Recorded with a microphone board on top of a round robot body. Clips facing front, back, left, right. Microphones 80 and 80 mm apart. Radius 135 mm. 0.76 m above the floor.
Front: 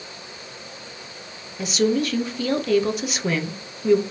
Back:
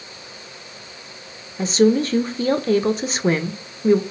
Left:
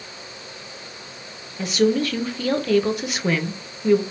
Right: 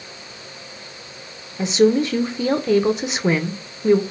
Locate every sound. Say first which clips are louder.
1.6 s a woman speaking: back 5 dB, right 4 dB; 145° right, 0.6 m